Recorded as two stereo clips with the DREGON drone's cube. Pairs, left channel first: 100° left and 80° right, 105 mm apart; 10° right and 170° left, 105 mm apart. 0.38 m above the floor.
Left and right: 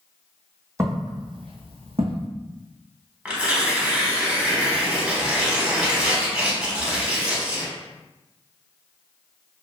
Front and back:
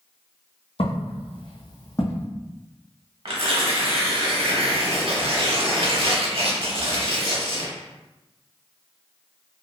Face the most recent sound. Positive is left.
turn(degrees=-160)